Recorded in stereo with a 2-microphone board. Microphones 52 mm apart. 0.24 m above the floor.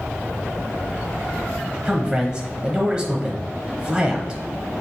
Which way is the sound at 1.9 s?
15° right (ahead or behind).